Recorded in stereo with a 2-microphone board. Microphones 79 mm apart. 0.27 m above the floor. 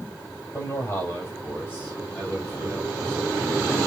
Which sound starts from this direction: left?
A man speaking, at 0.5 s.